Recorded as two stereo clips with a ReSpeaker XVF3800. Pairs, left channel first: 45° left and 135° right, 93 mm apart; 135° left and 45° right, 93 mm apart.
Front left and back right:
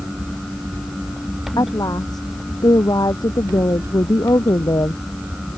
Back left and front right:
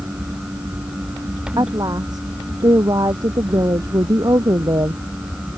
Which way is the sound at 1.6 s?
Straight ahead.